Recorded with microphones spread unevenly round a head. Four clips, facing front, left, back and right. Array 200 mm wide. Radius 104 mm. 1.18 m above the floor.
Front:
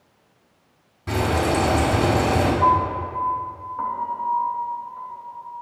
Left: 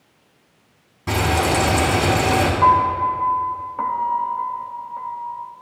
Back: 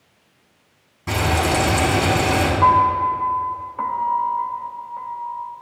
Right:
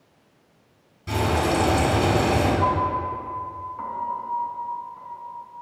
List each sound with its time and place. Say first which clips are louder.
1.1 s frying: left 3 dB, back 1 dB; 105° left, 1.7 m
2.6 s a piano: left 7 dB, back 4 dB; 120° left, 0.7 m